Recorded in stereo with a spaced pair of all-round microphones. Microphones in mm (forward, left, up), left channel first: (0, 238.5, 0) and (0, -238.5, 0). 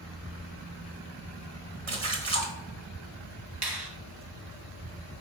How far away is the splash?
About 1.2 m.